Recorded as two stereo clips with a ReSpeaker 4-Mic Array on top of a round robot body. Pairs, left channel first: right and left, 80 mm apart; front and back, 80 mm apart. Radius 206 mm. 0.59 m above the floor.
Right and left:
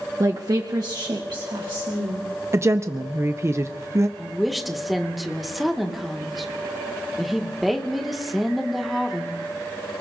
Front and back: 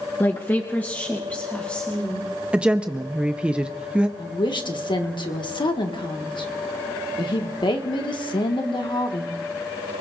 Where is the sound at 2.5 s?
110° left, 0.9 m.